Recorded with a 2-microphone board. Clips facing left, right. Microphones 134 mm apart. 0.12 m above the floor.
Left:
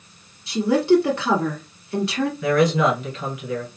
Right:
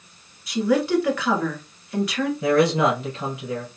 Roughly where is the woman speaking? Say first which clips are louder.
Left 3 dB; left.